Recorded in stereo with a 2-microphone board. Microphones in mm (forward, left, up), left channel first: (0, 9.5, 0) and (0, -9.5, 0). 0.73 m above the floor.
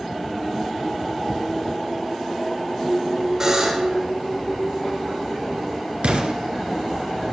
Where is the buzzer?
20° right (ahead or behind), 4.5 m.